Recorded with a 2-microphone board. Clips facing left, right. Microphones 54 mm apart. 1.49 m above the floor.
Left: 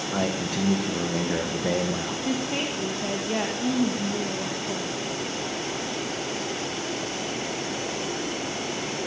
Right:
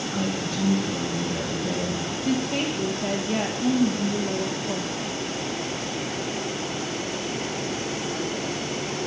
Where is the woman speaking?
15° left (ahead or behind), 1.8 m.